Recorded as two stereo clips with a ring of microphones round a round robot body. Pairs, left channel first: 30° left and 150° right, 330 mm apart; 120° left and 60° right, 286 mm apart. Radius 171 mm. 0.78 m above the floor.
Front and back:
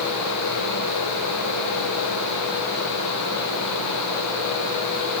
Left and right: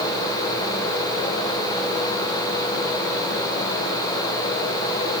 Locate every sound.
Only background noise.